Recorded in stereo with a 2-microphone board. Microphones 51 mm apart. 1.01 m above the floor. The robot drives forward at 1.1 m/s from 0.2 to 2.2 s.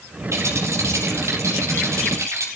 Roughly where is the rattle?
Right.